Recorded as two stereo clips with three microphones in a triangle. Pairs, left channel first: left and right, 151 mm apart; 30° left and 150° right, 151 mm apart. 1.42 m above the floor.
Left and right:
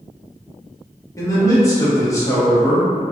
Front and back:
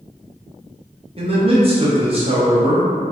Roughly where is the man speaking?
Behind left.